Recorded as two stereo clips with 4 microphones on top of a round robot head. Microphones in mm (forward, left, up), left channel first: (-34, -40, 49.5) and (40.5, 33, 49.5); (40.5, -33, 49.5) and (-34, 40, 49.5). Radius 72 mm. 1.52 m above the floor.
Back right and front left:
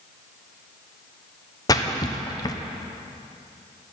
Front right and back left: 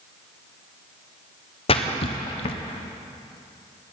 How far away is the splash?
About 1.0 m.